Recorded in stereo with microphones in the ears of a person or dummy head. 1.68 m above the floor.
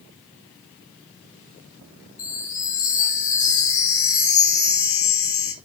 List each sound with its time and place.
2.2 s a chime: 25° left (ahead or behind), 2.5 m